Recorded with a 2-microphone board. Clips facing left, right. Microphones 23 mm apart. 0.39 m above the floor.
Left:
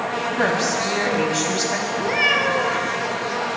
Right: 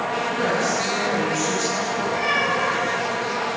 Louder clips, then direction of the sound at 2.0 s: Left 4 dB; 70° left (ahead or behind).